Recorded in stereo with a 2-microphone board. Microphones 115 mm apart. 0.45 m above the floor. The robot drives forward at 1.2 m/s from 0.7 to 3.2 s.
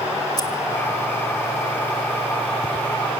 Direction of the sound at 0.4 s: 35° left (ahead or behind).